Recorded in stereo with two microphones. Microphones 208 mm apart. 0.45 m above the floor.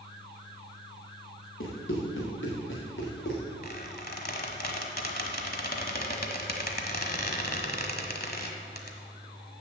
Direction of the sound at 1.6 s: 70° left (ahead or behind).